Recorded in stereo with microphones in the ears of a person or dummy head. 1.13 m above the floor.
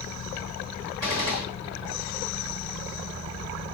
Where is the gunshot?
20° right (ahead or behind), 1.4 m.